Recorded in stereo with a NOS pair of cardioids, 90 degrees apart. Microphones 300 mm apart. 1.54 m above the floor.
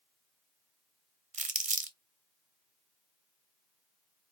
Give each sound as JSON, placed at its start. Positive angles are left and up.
{"t": 1.3, "sound": "crumpling", "azimuth_deg": -25, "distance_m": 0.6}